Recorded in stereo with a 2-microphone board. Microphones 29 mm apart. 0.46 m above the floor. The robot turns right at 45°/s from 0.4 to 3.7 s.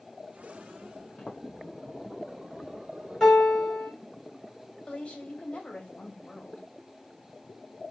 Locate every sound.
1.2 s footsteps: 40° left (ahead or behind), 1.8 m; by 1.4 s 50° left (ahead or behind), 1.8 m
3.2 s a piano: 15° left (ahead or behind), 2.5 m; by 3.9 s 5° right (ahead or behind), 2.5 m
4.9 s a woman speaking: 40° left (ahead or behind), 2 m